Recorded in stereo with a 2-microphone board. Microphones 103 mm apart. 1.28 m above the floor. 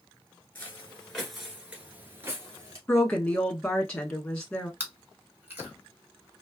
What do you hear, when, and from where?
0.6 s footsteps: 20° left (ahead or behind), 1.3 m; by 2.8 s 35° right (ahead or behind), 1.5 m
2.9 s a woman speaking: 10° left (ahead or behind), 1.3 m
4.8 s chewing: 20° right (ahead or behind), 1.3 m